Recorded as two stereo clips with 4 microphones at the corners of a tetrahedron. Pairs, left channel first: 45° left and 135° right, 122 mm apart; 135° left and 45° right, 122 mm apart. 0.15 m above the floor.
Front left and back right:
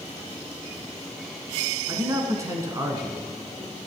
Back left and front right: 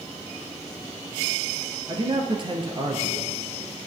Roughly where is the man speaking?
Right.